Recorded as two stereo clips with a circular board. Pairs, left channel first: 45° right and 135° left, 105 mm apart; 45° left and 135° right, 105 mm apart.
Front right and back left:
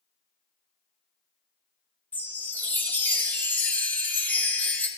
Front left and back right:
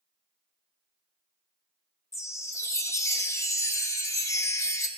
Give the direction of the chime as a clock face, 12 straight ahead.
11 o'clock.